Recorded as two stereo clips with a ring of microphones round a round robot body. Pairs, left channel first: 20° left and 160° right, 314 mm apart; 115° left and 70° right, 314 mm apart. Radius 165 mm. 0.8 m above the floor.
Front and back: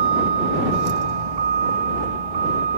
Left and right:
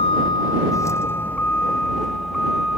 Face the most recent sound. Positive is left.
turn(degrees=-155)